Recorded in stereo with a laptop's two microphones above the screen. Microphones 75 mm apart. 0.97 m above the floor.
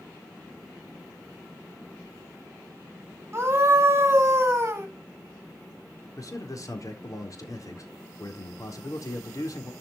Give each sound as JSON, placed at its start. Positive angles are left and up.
{"t": 3.3, "sound": "a scream", "side_deg": -30, "distance_m": 2.0}
{"t": 6.2, "sound": "a man speaking", "side_deg": 50, "distance_m": 3.5}